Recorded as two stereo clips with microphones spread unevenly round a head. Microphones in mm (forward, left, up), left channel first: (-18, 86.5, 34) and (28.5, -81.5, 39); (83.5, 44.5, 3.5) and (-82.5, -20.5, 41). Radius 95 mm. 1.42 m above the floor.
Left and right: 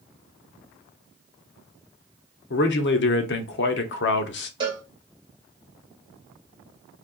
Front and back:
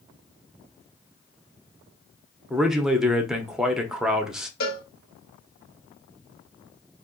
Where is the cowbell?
10° right, 1.4 m.